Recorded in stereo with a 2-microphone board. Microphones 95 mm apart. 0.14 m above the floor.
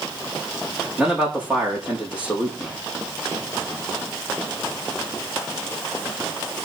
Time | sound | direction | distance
1.0 | a man speaking | 15° right (ahead or behind) | 7 m